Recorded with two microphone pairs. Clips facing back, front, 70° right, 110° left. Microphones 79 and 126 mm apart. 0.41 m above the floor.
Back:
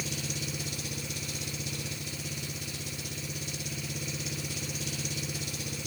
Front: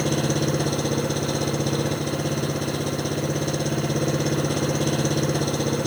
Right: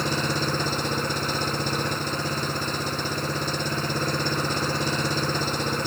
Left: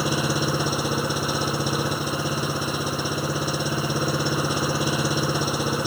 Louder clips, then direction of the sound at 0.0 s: Front 15 dB, left 2 dB; 30° left.